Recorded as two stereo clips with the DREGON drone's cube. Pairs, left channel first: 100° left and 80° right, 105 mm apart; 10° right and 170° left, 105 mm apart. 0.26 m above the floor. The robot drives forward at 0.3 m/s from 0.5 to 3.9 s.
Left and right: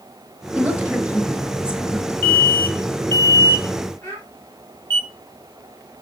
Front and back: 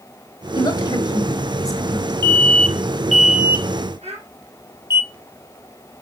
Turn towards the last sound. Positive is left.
turn(degrees=170)